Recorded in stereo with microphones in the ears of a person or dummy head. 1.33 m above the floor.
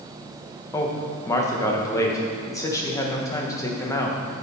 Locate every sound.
0.7 s a man speaking: 10° left (ahead or behind), 1.1 m